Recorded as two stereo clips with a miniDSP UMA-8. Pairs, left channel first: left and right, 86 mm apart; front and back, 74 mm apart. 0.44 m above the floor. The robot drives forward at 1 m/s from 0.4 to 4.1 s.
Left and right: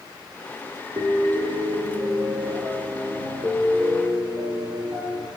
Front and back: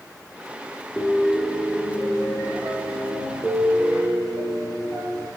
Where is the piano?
75° right, 2 m; by 5.3 s 140° right, 3.5 m.